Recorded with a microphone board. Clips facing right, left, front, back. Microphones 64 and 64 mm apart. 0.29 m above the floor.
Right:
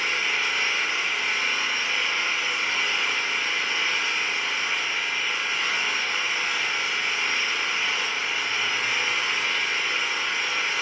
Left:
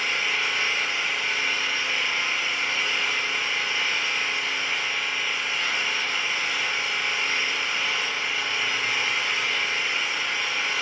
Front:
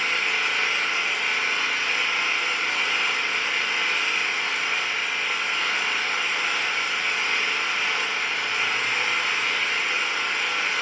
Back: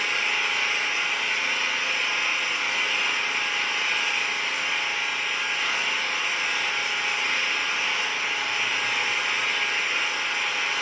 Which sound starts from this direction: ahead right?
An engine running, at 0.0 s.